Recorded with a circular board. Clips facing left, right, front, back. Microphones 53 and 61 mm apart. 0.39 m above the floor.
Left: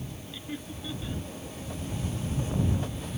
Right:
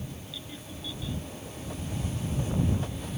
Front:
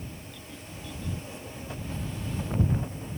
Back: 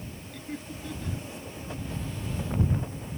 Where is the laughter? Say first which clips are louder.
Left 4 dB, back 5 dB; 145° left.